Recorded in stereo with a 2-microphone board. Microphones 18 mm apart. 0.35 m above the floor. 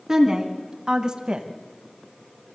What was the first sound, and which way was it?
A woman speaking, 30° right (ahead or behind).